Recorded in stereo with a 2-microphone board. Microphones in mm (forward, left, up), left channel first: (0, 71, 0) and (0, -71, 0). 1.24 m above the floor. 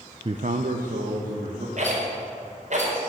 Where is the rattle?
60° right (ahead or behind), 4.5 m.